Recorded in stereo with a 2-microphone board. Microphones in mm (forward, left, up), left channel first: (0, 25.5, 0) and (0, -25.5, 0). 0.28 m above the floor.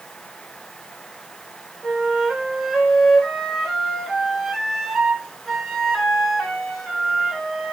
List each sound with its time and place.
1.8 s a flute: centre (ahead or behind), 2 m